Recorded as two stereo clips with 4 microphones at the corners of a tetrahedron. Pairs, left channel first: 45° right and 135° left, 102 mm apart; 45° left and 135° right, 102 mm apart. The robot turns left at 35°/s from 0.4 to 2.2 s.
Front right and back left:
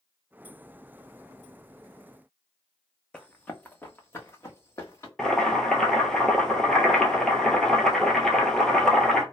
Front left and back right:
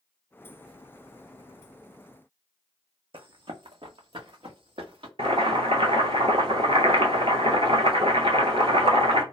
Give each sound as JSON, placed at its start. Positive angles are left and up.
{"t": 3.1, "sound": "running footsteps", "azimuth_deg": -125, "distance_m": 0.6}
{"t": 5.2, "sound": "boiling", "azimuth_deg": -130, "distance_m": 1.0}